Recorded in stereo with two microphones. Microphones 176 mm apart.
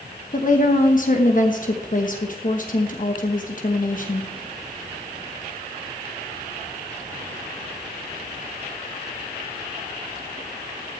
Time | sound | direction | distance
0.3 | a woman speaking | 50° left (ahead or behind) | 1.1 m